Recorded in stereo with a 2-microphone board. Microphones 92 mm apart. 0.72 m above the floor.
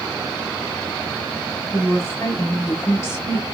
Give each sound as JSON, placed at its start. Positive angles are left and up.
{"t": 1.7, "sound": "a woman speaking", "side_deg": 30, "distance_m": 3.0}